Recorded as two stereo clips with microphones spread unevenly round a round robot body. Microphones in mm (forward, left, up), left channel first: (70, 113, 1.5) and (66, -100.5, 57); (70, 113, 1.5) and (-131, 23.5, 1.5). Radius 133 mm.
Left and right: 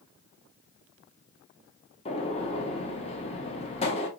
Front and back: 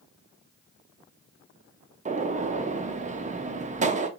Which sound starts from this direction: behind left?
A gunshot, at 2.0 s.